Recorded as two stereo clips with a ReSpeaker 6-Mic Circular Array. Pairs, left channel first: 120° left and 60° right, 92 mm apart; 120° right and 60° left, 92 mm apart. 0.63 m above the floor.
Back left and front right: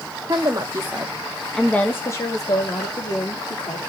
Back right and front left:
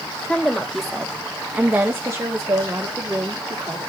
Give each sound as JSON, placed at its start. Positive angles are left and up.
{"t": 0.3, "sound": "a woman speaking", "azimuth_deg": -45, "distance_m": 1.3}